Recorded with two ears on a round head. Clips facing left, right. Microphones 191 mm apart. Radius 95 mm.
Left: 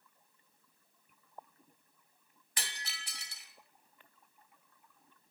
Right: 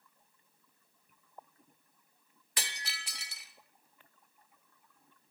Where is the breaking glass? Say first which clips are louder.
Right 3 dB; 55° right (ahead or behind), 1.0 m.